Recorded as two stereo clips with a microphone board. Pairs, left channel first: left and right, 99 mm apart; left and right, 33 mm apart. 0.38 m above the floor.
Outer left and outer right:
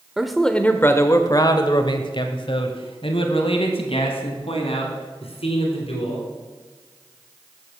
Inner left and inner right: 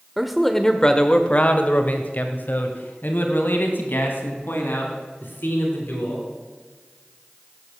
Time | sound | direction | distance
0.2 | a man speaking | 5° right (ahead or behind) | 0.8 m